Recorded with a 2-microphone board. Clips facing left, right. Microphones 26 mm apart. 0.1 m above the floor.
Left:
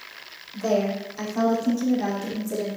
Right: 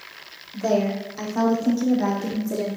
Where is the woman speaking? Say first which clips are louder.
Right 1 dB; 15° right (ahead or behind), 4 m; by 2.7 s 35° right (ahead or behind), 5 m.